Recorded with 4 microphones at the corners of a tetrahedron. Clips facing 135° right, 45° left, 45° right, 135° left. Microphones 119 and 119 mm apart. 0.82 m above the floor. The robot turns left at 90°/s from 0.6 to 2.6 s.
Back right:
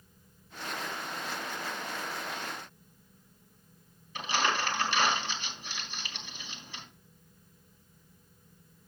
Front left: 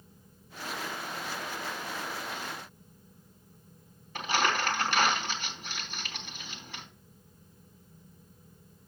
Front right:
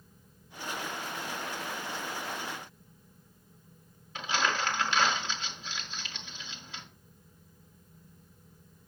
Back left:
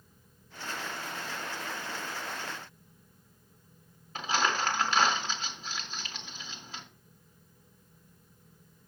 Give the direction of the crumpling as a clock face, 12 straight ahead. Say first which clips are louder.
Front left 1 dB, back left 1 dB; 9 o'clock.